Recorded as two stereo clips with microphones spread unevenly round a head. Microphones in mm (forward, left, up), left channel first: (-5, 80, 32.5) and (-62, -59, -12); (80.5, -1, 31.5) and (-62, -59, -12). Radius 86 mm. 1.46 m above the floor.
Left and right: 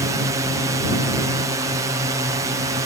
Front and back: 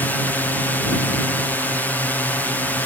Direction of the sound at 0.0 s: 70° right.